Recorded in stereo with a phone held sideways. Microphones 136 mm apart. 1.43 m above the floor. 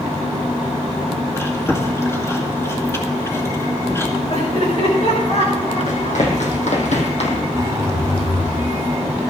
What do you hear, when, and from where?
1.4 s chewing: 20° left (ahead or behind), 2 m
4.3 s laughter: 55° left (ahead or behind), 8 m
5.9 s running footsteps: 75° left (ahead or behind), 4.5 m; by 7.4 s 55° left (ahead or behind), 3.5 m
7.5 s a zipper: 25° right (ahead or behind), 1.5 m